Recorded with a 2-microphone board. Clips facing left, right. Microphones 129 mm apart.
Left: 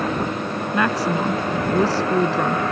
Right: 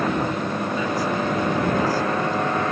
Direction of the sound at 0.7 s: 80° left.